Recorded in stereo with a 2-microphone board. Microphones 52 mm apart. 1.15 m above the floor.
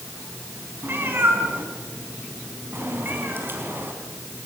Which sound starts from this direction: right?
A cat meowing, at 0.8 s.